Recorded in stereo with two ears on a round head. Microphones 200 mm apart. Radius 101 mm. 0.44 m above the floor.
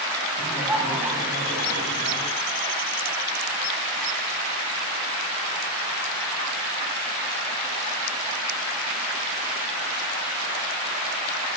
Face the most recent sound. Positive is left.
turn(degrees=-15)  # may be behind; listen again after turning